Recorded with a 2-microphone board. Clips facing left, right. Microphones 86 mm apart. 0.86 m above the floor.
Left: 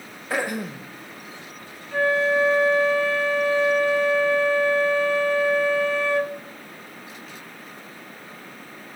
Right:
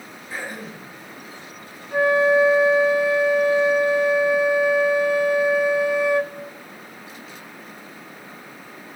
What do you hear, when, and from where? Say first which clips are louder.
0.3 s throat clearing: left 7 dB; 80° left, 0.6 m
1.9 s a flute: right 4 dB; 15° right (ahead or behind), 0.5 m